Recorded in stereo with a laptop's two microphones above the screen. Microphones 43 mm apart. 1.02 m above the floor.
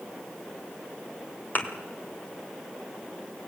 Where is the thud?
45° left (ahead or behind), 2.0 m.